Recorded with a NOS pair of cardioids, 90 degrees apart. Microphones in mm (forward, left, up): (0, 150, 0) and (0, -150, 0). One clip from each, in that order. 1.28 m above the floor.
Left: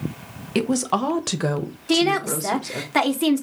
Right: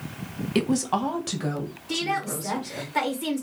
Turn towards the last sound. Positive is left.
turn(degrees=65)